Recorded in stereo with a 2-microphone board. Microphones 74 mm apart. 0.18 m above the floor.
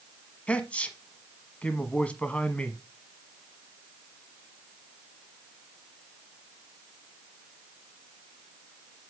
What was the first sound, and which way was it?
A man speaking, 15° left (ahead or behind).